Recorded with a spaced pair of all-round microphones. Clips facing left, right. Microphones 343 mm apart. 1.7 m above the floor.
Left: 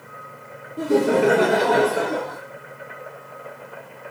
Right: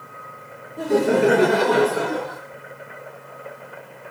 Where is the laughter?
10° left (ahead or behind), 0.6 m; by 2.4 s 15° right (ahead or behind), 1.1 m.